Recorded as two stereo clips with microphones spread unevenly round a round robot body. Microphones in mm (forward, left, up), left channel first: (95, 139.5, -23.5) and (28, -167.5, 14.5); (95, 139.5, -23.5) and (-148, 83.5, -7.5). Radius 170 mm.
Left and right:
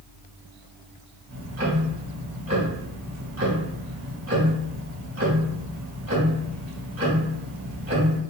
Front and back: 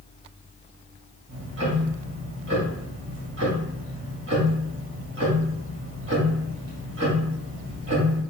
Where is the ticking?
165° right, 1.6 m.